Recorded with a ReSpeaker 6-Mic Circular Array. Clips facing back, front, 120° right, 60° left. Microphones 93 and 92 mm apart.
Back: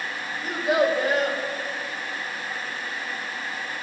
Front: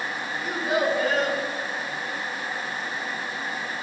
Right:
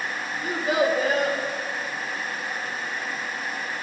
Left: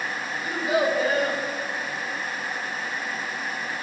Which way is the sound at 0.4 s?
95° right.